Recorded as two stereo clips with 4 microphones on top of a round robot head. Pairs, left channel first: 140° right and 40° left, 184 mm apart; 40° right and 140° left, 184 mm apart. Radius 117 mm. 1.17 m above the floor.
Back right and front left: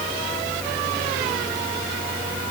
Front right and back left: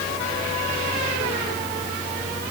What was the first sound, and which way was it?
Only background noise.